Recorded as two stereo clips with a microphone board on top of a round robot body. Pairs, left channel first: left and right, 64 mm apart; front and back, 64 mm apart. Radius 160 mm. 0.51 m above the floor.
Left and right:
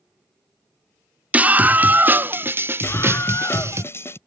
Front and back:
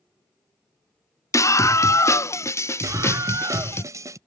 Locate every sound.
1.3 s a scream: 25° right; by 3.8 s 45° right
2.8 s a scream: 140° left